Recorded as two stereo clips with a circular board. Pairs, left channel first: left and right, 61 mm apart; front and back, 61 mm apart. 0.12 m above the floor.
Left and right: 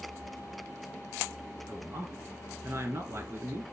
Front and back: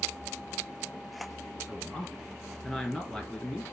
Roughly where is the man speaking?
Right.